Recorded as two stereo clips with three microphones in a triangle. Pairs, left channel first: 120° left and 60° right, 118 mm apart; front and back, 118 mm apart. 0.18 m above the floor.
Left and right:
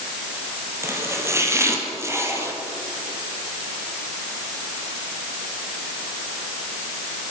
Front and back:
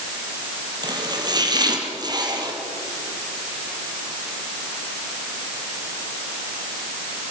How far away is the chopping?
About 3 m.